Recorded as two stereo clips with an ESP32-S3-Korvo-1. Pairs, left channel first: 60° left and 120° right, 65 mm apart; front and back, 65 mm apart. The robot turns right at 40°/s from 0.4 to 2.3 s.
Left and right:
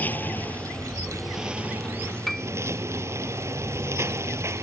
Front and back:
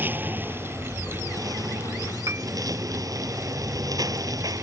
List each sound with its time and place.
0.0 s a lawn mower: 120° left; by 4.6 s 165° right
2.3 s a piano: 145° left; by 2.5 s 150° left